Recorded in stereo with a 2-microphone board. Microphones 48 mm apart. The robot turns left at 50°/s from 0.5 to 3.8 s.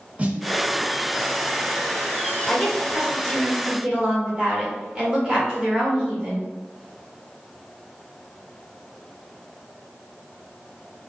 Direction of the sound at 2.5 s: Centre (ahead or behind).